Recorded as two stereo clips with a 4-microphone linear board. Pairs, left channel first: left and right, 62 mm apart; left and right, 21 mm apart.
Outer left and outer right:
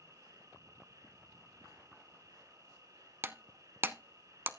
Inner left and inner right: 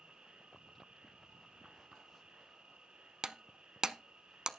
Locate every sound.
0.0 s an insect: 60° right (ahead or behind), 4 m
3.2 s breaking glass: 35° right (ahead or behind), 0.6 m